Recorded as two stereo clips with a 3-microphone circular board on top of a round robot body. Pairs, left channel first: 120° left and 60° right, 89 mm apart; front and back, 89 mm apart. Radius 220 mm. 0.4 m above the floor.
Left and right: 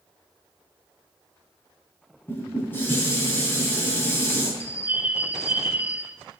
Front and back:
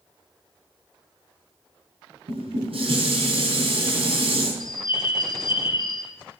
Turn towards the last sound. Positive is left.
turn(degrees=5)